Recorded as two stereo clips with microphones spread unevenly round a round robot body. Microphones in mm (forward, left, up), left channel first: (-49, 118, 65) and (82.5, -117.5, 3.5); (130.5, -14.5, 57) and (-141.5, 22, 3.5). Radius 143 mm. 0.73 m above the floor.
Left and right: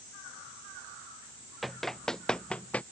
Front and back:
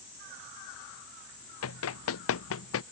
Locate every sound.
1.6 s running footsteps: 30° left; by 2.8 s 35° left